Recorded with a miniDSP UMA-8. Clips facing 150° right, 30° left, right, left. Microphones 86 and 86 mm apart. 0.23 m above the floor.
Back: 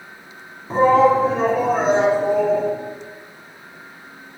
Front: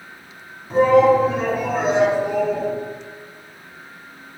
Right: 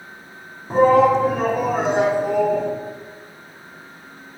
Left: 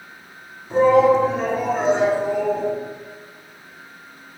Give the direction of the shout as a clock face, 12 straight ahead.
4 o'clock.